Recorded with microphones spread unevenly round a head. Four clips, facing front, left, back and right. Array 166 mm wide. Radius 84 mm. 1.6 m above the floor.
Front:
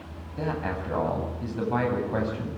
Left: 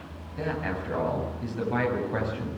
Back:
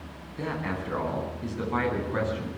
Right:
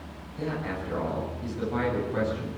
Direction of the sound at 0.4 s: 20° left.